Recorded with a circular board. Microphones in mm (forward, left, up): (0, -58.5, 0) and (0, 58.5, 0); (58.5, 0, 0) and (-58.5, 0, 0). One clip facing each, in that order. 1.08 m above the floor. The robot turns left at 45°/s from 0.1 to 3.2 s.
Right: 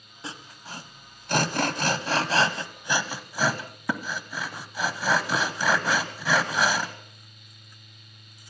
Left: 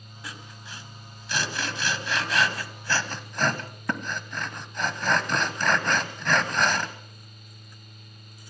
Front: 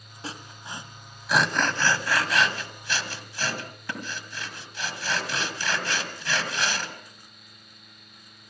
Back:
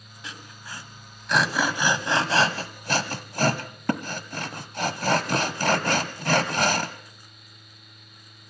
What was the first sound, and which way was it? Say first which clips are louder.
Sawing: right 3 dB, front 3 dB; 40° right.